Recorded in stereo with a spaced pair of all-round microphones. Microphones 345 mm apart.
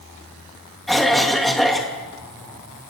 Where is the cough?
Centre (ahead or behind), 3 m.